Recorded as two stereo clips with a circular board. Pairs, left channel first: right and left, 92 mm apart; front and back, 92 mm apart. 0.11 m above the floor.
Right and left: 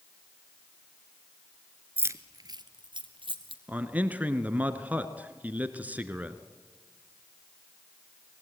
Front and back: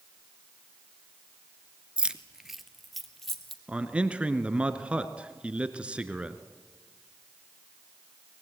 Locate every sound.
2.0 s keys jangling: 115° left, 0.8 m; by 3.6 s 85° left, 2 m
3.7 s a man speaking: 125° left, 1.2 m